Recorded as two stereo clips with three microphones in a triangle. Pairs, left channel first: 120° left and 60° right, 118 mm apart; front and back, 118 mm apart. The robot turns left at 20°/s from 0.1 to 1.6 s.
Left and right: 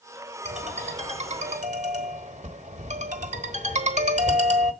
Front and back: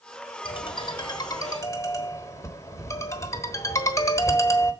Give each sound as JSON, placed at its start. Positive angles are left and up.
{"t": 0.5, "sound": "a ringtone", "azimuth_deg": -40, "distance_m": 1.1}